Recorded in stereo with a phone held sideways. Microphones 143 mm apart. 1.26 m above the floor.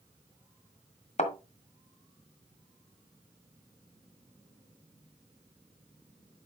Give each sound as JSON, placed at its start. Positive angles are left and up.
{"t": 1.2, "sound": "a thud", "side_deg": 55, "distance_m": 1.6}